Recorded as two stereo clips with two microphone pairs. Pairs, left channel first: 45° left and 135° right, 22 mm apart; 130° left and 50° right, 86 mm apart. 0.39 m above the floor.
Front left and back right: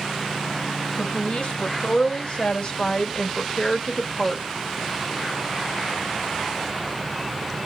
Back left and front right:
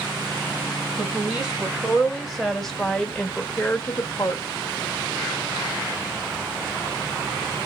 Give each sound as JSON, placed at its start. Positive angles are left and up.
{"t": 1.0, "sound": "a woman speaking", "azimuth_deg": 25, "distance_m": 2.0}